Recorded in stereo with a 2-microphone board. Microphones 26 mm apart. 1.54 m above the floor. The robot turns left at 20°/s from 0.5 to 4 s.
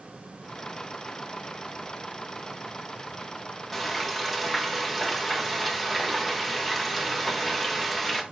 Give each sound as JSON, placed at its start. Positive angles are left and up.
{"t": 3.7, "sound": "frying", "side_deg": 5, "distance_m": 1.3}